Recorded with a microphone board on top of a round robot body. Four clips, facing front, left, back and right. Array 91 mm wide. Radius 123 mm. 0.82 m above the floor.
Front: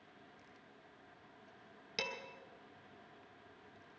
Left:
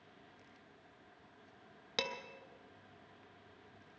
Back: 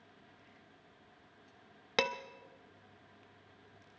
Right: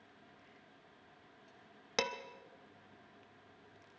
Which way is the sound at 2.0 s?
160° right.